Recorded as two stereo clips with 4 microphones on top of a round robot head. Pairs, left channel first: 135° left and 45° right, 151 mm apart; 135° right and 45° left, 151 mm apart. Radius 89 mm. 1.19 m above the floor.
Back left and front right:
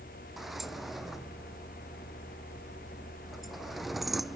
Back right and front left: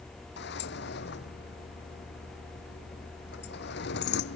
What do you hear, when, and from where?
0.4 s a sliding door: 135° right